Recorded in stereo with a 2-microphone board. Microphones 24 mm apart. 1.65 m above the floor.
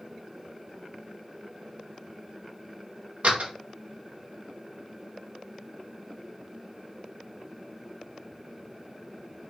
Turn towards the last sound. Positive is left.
turn(degrees=-65)  # may be behind; listen again after turning